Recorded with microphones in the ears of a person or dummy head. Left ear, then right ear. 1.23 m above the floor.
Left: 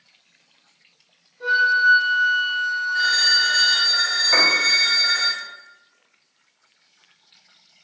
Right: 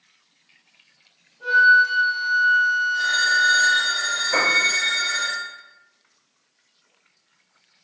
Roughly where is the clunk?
I don't hear a clunk.